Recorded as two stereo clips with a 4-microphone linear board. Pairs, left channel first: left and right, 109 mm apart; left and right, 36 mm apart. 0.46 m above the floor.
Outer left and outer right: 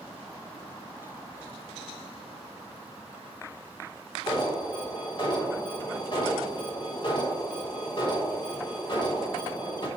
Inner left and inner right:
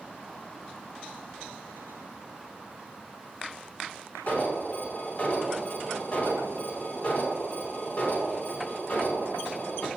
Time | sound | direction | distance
4.3 | an alarm | 50° left (ahead or behind) | 3 m